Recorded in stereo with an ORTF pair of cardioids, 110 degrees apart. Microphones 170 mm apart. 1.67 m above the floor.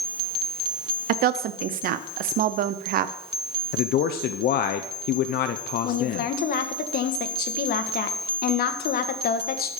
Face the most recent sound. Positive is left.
turn(degrees=65)